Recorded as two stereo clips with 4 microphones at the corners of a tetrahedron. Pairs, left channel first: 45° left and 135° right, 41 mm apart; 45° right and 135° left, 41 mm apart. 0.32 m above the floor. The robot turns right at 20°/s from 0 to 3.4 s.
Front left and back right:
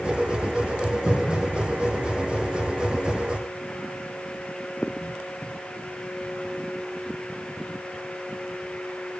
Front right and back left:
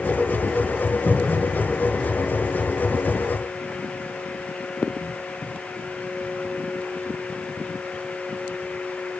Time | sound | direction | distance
1.1 | a cupboard door | 25° right | 3.5 m